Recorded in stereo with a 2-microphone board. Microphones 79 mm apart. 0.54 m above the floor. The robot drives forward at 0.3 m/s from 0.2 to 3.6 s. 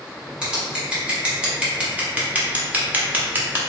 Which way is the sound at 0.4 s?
10° right (ahead or behind).